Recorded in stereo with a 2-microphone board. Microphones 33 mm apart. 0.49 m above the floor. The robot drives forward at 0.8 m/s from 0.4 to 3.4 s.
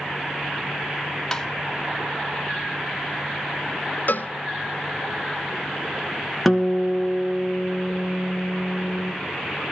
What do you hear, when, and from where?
1.3 s tapping: 15° left (ahead or behind), 1.2 m
4.1 s a cowbell: 60° left (ahead or behind), 0.6 m
6.5 s a guitar: centre (ahead or behind), 2.0 m